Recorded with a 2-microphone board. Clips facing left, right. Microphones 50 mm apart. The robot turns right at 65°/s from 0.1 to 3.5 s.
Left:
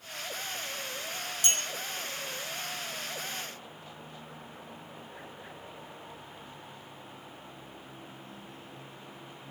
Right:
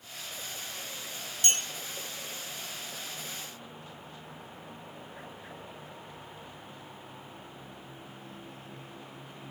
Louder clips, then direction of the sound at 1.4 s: Right 1 dB; 50° right (ahead or behind).